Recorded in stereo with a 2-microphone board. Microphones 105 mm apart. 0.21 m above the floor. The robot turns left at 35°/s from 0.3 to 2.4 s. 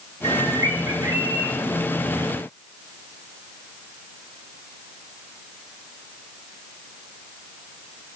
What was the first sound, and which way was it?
A bird, 90° right.